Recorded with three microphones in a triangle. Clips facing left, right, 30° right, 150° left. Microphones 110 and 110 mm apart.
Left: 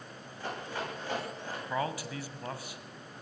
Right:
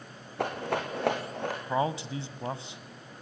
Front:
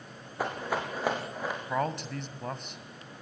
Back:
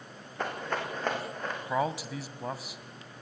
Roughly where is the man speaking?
Behind right.